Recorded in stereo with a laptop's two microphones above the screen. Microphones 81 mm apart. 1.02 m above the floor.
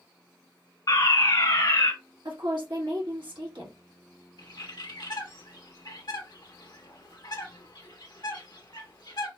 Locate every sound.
0.9 s a fire alarm: 50° left (ahead or behind), 1.7 m
2.2 s a woman speaking: 70° right (ahead or behind), 1.4 m
4.4 s a bird: 65° left (ahead or behind), 1.1 m